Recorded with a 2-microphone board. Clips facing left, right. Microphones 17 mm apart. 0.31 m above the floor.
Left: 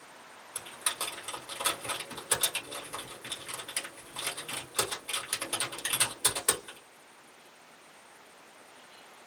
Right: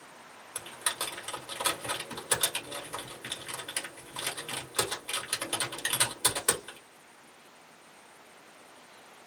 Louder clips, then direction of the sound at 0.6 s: Right 1 dB; 5° right (ahead or behind).